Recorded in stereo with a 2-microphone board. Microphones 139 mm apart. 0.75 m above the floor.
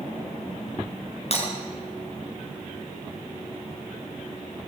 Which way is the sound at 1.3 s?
50° left (ahead or behind).